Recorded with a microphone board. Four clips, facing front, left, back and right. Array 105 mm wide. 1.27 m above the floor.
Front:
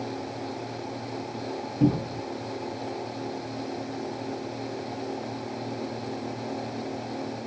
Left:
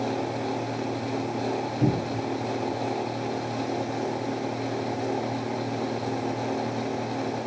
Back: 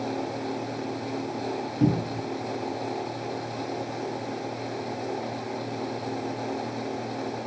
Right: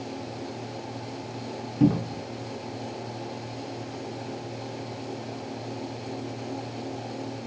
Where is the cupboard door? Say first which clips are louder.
Right 5 dB, front 1 dB; 95° right, 1.2 m.